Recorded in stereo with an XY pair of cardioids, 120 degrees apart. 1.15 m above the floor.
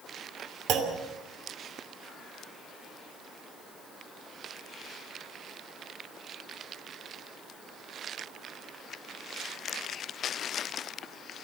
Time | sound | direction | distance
0.7 | a clunk | 65° right | 2.5 m